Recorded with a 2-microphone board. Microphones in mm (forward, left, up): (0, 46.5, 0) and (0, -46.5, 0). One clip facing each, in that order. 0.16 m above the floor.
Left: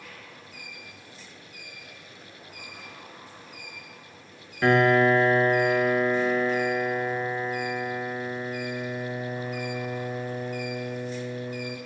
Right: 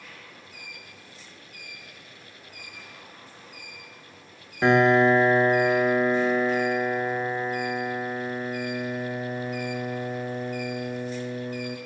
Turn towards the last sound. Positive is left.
turn(degrees=-20)  # may be behind; listen again after turning